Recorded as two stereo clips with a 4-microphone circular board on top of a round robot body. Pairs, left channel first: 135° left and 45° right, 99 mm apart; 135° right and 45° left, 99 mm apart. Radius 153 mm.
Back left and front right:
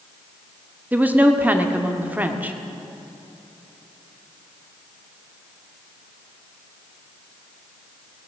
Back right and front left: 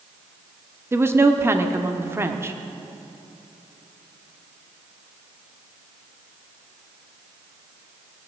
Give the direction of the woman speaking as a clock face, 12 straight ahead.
12 o'clock.